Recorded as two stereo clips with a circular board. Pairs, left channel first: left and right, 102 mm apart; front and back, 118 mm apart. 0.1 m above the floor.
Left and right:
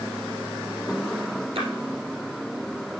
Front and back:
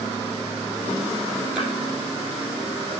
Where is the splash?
100° right, 2.5 m.